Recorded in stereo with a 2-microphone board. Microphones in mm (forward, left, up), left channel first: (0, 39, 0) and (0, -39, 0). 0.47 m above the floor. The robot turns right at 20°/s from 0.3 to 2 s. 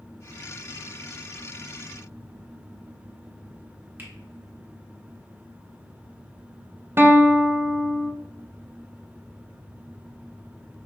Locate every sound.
4.0 s a finger snap: 25° right (ahead or behind), 1.2 m
7.0 s a guitar: 30° right (ahead or behind), 0.5 m